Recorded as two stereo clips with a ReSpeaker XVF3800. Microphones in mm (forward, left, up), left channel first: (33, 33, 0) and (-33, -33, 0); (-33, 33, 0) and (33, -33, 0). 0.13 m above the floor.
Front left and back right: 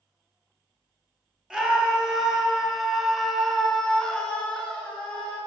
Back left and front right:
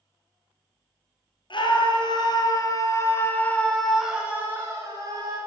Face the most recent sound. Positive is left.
turn(degrees=-25)